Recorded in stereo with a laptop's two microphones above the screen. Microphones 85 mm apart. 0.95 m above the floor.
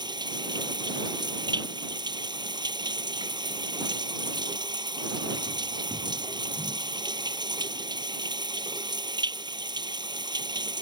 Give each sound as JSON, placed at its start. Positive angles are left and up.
{"t": 0.0, "sound": "running water", "side_deg": -60}